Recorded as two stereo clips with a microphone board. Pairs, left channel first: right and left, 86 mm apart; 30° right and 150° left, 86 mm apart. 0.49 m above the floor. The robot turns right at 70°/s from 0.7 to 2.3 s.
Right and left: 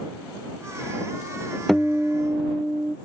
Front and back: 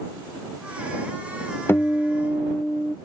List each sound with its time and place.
1.7 s a guitar: 10° right; by 3.0 s 35° left